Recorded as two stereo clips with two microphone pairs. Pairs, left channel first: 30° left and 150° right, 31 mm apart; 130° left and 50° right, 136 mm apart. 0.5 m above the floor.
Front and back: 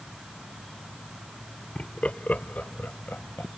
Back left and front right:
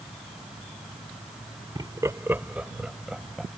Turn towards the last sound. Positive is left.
turn(degrees=40)